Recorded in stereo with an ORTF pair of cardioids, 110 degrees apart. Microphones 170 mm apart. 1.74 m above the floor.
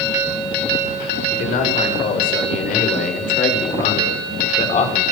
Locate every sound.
1.3 s a man speaking: 60° left, 8.5 m; by 5.1 s 45° left, 6.5 m